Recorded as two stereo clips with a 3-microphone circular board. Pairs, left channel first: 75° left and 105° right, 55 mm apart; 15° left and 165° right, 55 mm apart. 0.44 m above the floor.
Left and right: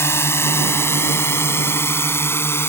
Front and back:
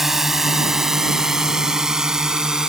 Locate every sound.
0.0 s a drone: 110° left; by 2.7 s 115° left